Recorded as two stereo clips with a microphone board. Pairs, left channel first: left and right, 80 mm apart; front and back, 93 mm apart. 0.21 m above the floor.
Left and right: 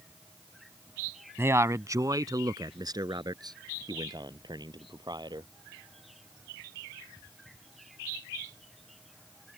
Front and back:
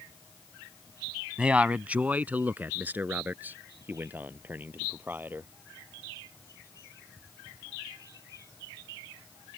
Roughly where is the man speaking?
Right.